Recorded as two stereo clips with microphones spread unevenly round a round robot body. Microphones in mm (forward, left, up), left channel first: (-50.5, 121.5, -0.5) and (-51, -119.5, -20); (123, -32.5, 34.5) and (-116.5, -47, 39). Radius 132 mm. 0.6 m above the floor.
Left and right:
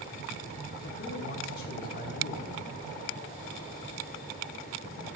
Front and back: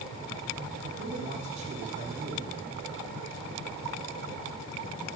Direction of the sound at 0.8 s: 135° left.